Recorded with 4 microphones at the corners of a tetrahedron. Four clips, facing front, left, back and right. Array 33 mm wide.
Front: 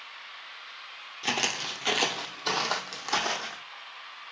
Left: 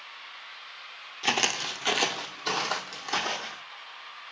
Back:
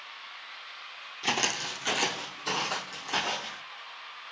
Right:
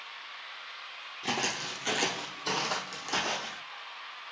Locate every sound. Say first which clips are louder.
1.2 s footsteps: left 6 dB, even; 90° left, 0.6 m; by 3.6 s 15° left, 1.4 m